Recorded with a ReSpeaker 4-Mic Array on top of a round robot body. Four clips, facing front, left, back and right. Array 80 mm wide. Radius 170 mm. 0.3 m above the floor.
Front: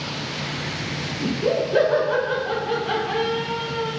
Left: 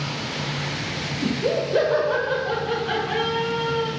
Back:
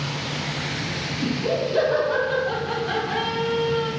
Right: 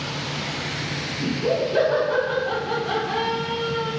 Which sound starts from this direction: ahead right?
Laughter, at 1.2 s.